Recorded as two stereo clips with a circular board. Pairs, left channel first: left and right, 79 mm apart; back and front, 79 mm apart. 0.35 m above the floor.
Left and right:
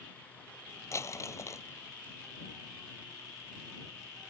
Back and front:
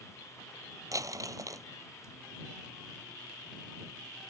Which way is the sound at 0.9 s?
40° left.